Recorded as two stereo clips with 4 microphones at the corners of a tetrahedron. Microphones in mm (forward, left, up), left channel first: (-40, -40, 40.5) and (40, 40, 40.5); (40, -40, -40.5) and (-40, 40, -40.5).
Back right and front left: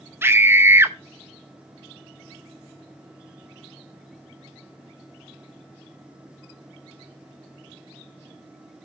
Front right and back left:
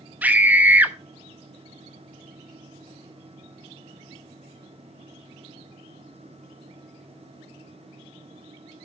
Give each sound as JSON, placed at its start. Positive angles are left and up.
{"t": 0.2, "sound": "a scream", "azimuth_deg": 85, "distance_m": 0.7}